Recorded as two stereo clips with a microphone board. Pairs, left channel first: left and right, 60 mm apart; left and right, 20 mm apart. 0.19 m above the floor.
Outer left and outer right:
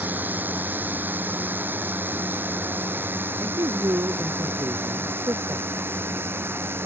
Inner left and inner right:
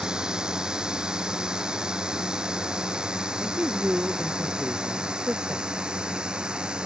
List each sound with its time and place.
0.0 s a drone: 35° right (ahead or behind); by 6.9 s 40° right (ahead or behind)
3.4 s a man speaking: 80° right